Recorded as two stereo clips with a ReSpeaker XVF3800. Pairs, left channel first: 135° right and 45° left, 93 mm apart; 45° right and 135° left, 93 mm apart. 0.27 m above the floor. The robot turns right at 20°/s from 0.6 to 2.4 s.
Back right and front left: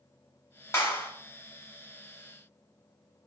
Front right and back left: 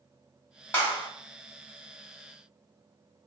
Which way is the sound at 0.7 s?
100° right.